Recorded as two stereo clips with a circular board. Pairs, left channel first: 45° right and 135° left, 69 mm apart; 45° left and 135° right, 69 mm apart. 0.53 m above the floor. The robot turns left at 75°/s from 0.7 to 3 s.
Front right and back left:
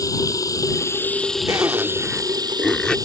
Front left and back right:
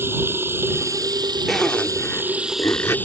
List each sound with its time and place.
0.0 s running water: 80° right; by 3.1 s 110° left
1.5 s a zipper: 135° left; by 3.0 s 20° left